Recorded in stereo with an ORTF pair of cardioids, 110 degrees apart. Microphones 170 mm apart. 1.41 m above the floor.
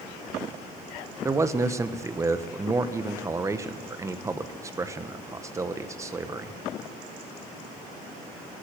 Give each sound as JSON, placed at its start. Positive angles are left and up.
{"t": 1.2, "sound": "a man speaking", "azimuth_deg": -20, "distance_m": 1.1}